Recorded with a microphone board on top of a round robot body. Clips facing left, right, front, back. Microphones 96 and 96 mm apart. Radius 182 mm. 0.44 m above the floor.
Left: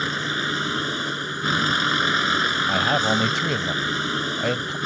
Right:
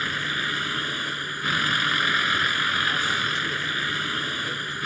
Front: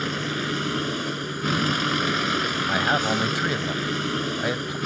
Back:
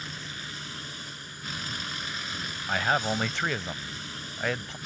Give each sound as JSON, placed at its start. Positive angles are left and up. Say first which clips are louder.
{"t": 0.0, "sound": "a vehicle", "louder": "left 3 dB, front 14 dB", "azimuth_deg": 25}
{"t": 2.7, "sound": "a man speaking", "louder": "left 5 dB, front 2 dB", "azimuth_deg": 80}